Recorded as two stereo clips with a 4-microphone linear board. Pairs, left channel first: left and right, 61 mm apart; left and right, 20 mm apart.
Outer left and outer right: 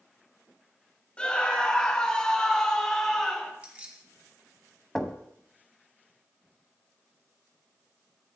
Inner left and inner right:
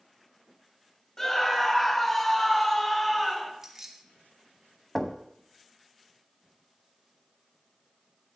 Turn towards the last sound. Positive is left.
turn(degrees=5)  # may be behind; listen again after turning